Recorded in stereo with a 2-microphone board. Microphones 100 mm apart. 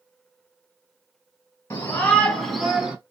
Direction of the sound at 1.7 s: 25° left (ahead or behind).